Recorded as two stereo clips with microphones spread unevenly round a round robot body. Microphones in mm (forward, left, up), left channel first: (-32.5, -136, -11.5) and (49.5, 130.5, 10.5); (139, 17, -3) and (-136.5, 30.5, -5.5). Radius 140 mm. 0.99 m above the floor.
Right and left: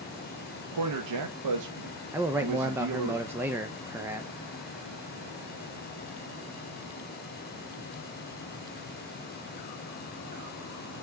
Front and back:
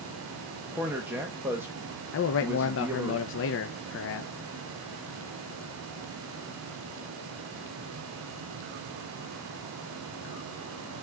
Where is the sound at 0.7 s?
95° left, 1.1 m.